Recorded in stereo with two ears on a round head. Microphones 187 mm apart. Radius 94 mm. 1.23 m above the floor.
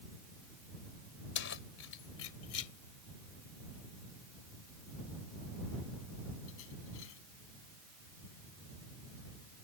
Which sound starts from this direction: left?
Keys jangling, at 1.4 s.